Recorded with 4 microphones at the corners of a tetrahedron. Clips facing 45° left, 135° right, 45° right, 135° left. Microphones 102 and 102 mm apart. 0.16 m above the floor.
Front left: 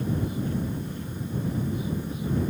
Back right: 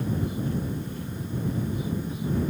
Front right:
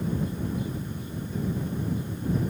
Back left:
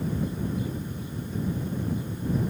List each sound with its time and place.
Only background noise.